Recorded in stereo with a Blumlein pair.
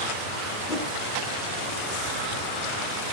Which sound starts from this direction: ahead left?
A whoosh, at 0.7 s.